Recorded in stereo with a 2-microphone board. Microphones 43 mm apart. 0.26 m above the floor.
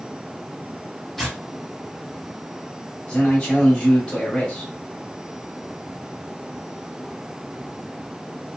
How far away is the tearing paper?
About 1.4 m.